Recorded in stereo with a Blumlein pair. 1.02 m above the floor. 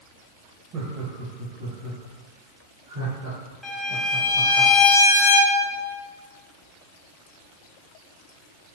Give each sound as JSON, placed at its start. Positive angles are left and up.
{"t": 0.7, "sound": "laughter", "azimuth_deg": -35, "distance_m": 0.7}
{"t": 3.6, "sound": "a violin", "azimuth_deg": 0, "distance_m": 0.6}